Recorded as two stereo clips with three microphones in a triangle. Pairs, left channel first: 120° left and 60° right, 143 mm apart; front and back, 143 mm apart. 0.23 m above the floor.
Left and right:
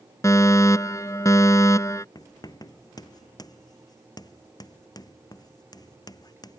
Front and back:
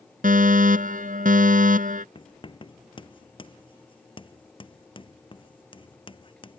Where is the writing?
55° left.